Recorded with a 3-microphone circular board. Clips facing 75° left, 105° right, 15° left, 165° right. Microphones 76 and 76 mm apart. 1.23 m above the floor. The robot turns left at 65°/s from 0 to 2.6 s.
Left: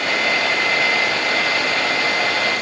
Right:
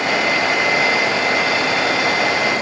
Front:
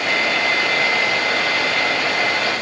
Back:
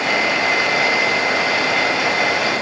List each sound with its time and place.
Only background noise.